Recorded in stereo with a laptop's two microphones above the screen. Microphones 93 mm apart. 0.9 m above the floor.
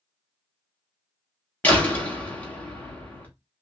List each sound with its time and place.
1.6 s a door slam: 15° left (ahead or behind), 1.1 m